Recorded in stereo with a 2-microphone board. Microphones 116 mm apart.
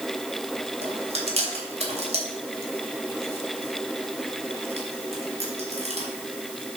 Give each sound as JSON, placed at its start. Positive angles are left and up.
{"t": 0.8, "sound": "chewing", "side_deg": -65, "distance_m": 2.5}